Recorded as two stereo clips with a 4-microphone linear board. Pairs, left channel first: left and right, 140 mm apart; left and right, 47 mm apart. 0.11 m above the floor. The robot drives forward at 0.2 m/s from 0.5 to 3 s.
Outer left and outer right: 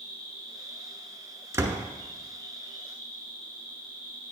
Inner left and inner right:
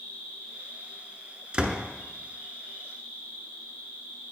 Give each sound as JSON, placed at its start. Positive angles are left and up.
{"t": 0.0, "sound": "an insect", "side_deg": 40, "distance_m": 4.0}
{"t": 1.5, "sound": "a door slam", "side_deg": -20, "distance_m": 0.8}